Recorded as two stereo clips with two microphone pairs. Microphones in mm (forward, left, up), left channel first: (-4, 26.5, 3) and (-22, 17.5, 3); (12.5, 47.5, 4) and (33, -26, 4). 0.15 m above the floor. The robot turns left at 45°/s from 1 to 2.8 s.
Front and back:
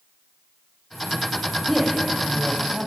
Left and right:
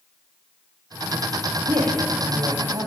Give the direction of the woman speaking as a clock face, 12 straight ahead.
2 o'clock.